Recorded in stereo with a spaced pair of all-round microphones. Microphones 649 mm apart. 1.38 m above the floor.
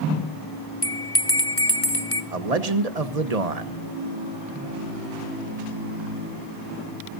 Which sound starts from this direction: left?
A bell, at 0.8 s.